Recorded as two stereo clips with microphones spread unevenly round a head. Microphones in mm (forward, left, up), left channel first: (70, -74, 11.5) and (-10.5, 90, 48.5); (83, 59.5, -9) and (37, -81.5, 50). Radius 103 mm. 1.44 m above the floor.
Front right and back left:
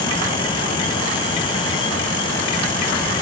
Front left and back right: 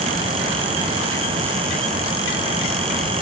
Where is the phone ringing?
No phone ringing in this recording.